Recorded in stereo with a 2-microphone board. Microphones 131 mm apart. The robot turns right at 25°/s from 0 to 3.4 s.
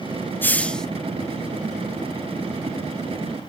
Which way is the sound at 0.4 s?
15° left (ahead or behind).